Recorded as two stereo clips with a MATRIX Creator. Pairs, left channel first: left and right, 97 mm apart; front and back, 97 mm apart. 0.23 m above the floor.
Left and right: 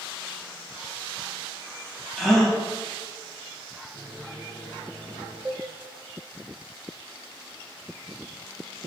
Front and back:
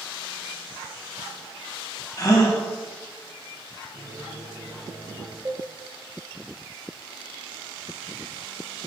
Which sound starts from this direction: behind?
A microwave, at 3.9 s.